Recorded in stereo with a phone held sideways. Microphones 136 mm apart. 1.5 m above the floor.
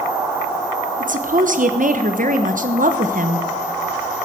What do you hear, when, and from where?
1.0 s a woman speaking: 80° right, 1.1 m